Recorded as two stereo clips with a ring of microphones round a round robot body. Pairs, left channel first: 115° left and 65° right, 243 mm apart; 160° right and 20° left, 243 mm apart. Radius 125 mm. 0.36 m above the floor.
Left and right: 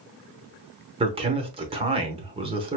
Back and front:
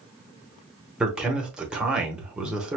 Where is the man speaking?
60° right, 0.8 m.